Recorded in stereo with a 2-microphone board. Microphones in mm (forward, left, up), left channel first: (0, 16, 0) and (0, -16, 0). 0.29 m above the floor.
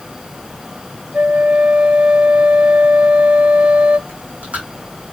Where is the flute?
50° right (ahead or behind), 0.8 m.